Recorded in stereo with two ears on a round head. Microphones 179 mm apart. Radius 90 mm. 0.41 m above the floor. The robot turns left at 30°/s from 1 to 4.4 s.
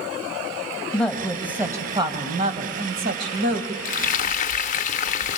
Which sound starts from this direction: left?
Frying, at 3.9 s.